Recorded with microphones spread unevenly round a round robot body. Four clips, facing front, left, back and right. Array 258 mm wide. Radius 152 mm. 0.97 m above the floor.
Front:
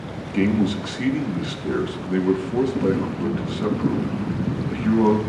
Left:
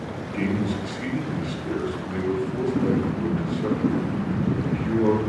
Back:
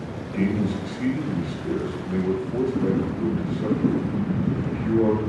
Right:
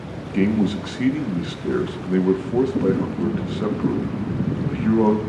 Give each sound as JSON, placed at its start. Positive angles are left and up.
{"t": 0.3, "sound": "a man speaking", "azimuth_deg": -55, "distance_m": 1.8}